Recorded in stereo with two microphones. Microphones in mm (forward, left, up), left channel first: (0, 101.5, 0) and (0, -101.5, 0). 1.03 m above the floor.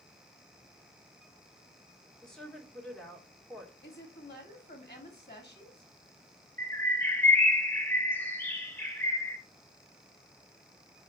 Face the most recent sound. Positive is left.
turn(degrees=10)  # may be behind; listen again after turning